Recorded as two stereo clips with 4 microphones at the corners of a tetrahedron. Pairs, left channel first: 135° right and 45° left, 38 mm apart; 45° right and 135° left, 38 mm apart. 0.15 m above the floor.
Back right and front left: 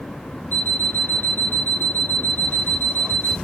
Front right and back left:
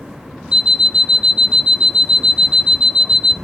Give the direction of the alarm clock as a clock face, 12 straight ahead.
5 o'clock.